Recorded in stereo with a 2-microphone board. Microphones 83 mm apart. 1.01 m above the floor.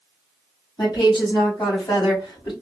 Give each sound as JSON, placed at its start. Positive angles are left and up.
{"t": 0.8, "sound": "a woman speaking", "side_deg": 65, "distance_m": 1.8}